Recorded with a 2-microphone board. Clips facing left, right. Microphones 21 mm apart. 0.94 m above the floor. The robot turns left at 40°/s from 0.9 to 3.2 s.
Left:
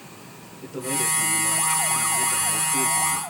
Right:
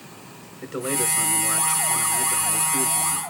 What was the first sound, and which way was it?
A man speaking, 95° right.